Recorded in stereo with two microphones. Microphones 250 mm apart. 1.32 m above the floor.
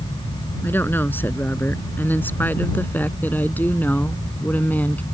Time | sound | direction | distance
0.6 | a woman speaking | 10° left (ahead or behind) | ?